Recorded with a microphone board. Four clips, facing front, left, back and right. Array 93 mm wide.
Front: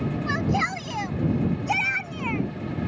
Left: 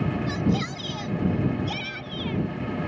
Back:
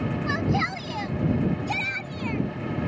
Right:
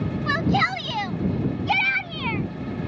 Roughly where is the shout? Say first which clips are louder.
Right 4 dB, front 1 dB; right.